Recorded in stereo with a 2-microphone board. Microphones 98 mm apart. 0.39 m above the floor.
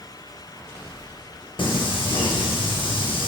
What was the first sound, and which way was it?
Singing, 65° left (ahead or behind).